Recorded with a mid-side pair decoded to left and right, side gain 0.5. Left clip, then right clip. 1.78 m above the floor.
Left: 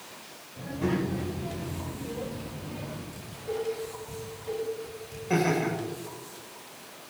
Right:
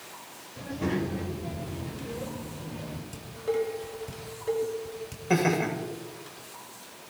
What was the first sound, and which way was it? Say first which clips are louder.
A child speaking: left 1 dB; 20° right.